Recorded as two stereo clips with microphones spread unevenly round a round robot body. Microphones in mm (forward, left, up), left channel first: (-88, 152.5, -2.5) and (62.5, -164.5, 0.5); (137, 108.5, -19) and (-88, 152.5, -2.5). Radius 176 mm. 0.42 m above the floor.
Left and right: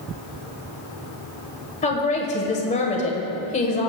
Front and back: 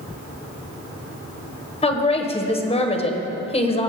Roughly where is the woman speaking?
Ahead left.